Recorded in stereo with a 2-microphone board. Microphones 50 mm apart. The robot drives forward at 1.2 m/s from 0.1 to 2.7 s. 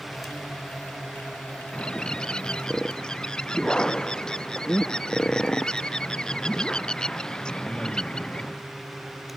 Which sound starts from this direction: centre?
A bird, at 1.7 s.